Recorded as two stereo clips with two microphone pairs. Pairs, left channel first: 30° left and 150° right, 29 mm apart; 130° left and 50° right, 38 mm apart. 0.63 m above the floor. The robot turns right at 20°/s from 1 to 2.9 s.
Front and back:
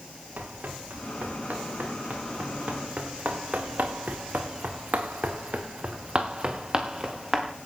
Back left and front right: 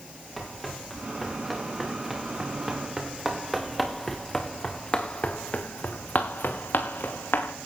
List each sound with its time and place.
0.4 s running footsteps: 145° right, 6.5 m; by 7.5 s 135° left, 4 m